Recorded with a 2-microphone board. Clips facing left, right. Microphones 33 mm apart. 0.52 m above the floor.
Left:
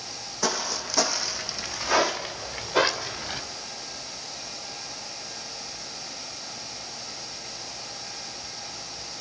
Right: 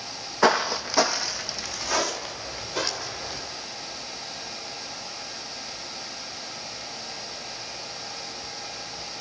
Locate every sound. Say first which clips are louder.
0.4 s footsteps: right 8 dB; 45° right (ahead or behind), 1.1 m; by 3.4 s 45° left (ahead or behind), 2 m